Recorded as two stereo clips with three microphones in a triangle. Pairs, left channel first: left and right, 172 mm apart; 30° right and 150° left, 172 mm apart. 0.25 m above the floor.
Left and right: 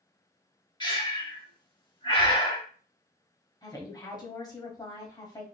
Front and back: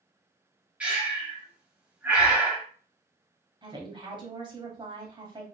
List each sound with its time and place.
0.8 s breathing: 75° left, 0.9 m
3.6 s a woman speaking: 130° left, 1.1 m